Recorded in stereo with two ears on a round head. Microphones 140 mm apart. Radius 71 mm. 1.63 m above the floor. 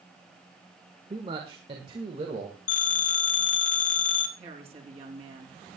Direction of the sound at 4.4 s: 40° right (ahead or behind).